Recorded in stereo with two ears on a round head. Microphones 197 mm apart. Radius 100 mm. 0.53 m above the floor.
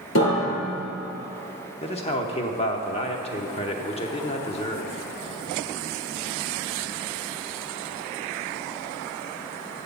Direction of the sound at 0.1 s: 60° left (ahead or behind).